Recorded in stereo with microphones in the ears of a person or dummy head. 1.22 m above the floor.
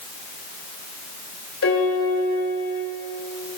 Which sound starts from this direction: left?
A piano, at 1.6 s.